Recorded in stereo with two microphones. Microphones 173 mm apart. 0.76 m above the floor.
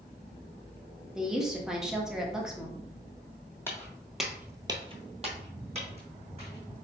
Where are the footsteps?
15° left (ahead or behind), 1.3 m; by 6.7 s 35° right (ahead or behind), 2.5 m.